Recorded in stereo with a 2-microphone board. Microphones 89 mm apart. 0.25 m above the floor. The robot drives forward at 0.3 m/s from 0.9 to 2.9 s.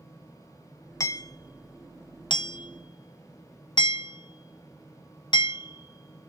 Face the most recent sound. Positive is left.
turn(degrees=60)  # may be behind; listen again after turning